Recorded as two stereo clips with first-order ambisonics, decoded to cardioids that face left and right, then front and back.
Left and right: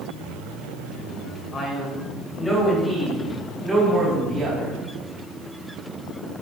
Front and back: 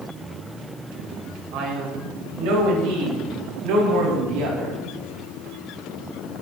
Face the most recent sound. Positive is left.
turn(degrees=-165)